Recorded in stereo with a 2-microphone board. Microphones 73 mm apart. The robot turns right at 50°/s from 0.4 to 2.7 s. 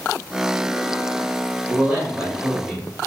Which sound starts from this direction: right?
A man speaking, at 1.7 s.